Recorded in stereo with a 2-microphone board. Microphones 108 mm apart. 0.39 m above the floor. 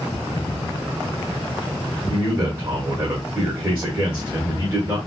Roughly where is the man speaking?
Right.